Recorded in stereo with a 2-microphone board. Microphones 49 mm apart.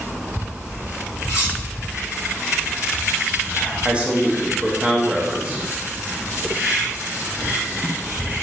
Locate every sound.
1.3 s cutlery clinking: 45° left (ahead or behind), 1.3 m
3.9 s a man speaking: 20° right (ahead or behind), 0.5 m